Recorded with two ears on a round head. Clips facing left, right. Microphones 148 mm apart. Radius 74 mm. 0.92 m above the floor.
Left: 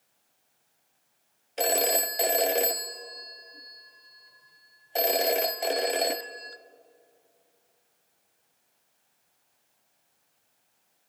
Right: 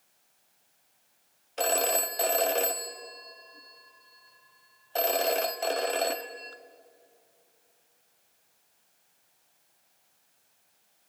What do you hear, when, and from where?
1.6 s a phone ringing: 15° left (ahead or behind), 0.6 m